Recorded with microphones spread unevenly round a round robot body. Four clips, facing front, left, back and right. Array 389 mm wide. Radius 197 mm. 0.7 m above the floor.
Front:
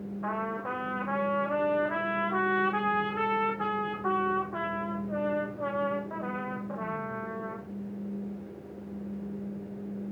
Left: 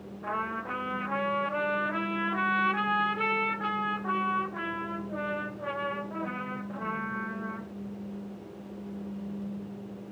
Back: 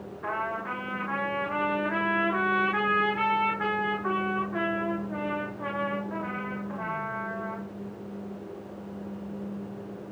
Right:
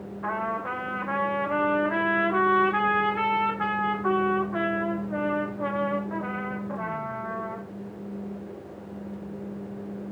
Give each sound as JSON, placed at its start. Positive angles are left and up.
{"t": 0.2, "sound": "a trumpet", "azimuth_deg": -55, "distance_m": 9.5}